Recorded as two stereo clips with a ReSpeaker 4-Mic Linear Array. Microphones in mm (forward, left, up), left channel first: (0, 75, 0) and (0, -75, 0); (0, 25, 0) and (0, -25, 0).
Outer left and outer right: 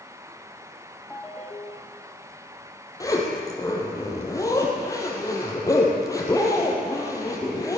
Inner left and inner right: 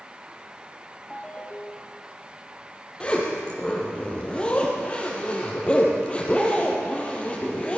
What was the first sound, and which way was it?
A ringtone, 10° left (ahead or behind).